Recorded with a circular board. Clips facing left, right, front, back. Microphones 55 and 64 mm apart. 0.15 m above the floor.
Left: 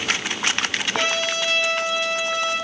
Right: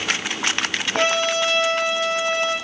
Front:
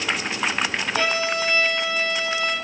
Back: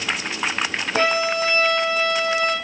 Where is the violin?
135° right, 4 m.